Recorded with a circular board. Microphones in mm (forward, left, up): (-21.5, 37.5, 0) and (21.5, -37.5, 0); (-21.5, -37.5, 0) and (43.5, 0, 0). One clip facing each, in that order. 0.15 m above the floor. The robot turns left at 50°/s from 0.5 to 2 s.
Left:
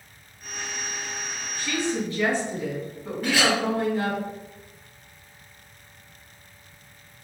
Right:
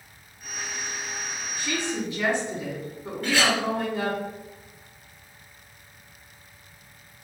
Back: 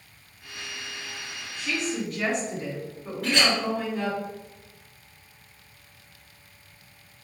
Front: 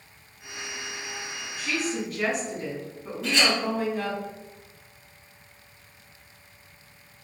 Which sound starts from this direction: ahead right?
A woman speaking, at 1.6 s.